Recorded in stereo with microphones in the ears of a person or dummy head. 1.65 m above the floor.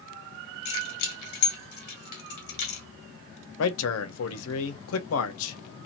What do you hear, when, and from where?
0.7 s keys jangling: 60° left (ahead or behind), 1.5 m
3.6 s a man speaking: 80° left, 0.9 m